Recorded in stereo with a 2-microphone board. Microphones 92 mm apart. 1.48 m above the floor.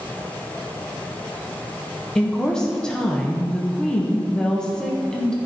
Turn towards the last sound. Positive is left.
turn(degrees=5)  # may be behind; listen again after turning